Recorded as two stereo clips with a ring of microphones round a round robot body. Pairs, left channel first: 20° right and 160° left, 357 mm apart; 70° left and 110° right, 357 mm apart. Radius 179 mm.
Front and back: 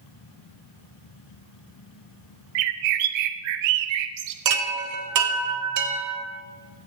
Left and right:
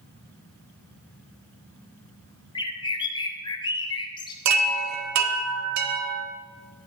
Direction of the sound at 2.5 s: 145° left.